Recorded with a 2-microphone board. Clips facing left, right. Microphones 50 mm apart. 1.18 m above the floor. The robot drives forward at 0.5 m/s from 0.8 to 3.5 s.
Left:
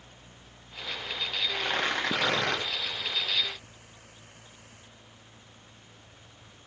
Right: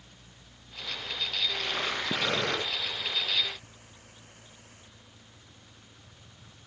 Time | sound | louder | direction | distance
1.6 | tearing paper | left 3 dB | 75° left (ahead or behind) | 9 m